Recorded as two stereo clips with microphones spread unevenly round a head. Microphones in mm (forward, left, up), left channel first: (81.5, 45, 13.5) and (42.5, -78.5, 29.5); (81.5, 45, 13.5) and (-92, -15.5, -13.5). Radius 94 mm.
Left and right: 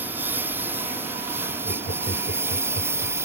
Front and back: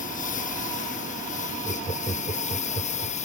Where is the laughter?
80° left.